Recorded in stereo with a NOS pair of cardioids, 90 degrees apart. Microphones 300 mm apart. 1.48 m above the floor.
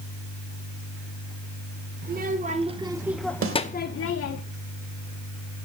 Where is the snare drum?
45° right, 2.5 m.